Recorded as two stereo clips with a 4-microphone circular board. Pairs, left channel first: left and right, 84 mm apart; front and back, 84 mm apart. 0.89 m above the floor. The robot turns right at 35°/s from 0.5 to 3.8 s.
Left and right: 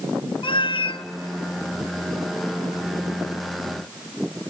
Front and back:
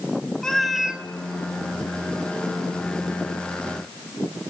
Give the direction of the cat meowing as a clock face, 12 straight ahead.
9 o'clock.